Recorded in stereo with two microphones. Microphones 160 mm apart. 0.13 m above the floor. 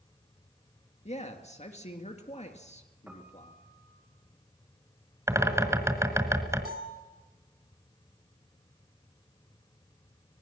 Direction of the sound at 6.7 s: 75° right (ahead or behind).